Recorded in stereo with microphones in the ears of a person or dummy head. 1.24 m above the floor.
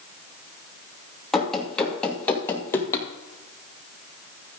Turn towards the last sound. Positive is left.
turn(degrees=20)  # may be behind; listen again after turning